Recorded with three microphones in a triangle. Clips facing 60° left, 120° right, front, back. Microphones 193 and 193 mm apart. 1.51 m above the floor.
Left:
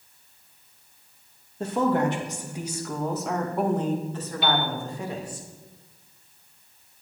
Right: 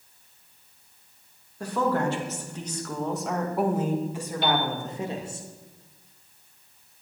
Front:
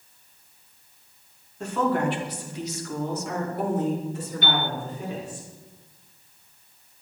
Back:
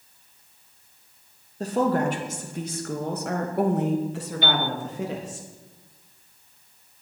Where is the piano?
30° right, 1.3 m.